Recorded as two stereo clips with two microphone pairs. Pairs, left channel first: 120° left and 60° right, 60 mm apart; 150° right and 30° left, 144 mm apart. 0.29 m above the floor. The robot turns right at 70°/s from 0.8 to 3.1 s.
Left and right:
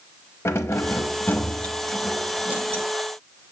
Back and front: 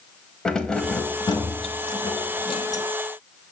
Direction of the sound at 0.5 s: 130° left.